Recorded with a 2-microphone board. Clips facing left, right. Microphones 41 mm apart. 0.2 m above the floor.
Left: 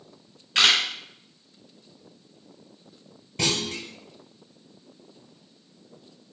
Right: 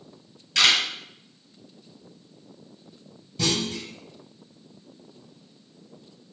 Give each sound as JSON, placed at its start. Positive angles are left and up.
{"t": 0.6, "sound": "a camera shutter", "side_deg": 25, "distance_m": 1.6}
{"t": 3.4, "sound": "a clunk", "side_deg": 60, "distance_m": 0.9}